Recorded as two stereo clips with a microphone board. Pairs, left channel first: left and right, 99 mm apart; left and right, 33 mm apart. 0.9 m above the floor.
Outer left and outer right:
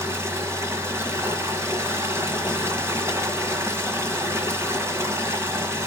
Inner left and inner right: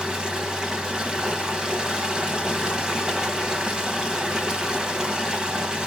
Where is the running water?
25° right (ahead or behind), 1.5 m.